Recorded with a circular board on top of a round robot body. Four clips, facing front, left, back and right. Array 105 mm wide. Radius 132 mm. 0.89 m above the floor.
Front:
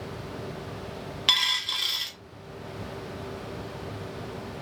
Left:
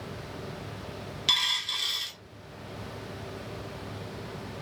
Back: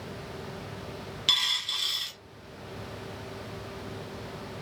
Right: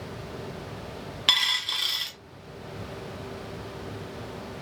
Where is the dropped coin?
60° right, 0.5 m.